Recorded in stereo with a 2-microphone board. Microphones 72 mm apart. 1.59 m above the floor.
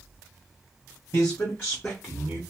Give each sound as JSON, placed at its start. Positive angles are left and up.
{"t": 1.1, "sound": "a man speaking", "side_deg": 40, "distance_m": 0.8}